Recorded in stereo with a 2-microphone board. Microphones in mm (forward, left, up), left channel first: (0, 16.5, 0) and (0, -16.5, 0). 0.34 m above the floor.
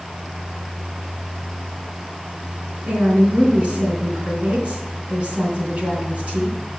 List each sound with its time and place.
2.9 s a woman speaking: 50° right (ahead or behind), 3.5 m